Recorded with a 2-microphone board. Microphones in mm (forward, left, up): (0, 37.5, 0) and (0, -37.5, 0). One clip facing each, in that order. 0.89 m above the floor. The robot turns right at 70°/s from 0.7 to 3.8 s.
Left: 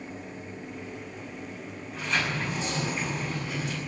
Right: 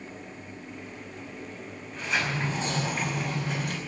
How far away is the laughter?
No laughter in this recording.